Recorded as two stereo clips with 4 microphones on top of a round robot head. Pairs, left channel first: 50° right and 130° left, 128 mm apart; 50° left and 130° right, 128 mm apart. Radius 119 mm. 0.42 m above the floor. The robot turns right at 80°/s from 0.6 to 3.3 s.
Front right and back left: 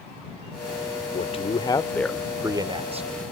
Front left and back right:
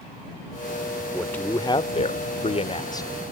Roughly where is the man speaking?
Ahead right.